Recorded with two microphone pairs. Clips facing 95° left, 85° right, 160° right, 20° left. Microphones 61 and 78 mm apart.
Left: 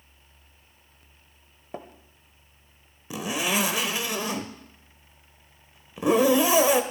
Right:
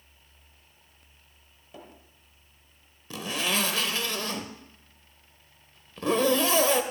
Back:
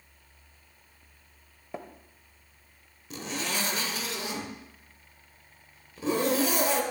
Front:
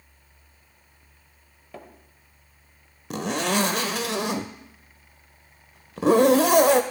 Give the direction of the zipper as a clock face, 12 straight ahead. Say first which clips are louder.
Left 3 dB, front 9 dB; 11 o'clock.